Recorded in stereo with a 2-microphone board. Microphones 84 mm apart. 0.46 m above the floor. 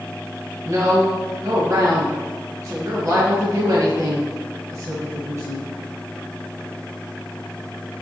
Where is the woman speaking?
45° right (ahead or behind), 2 m.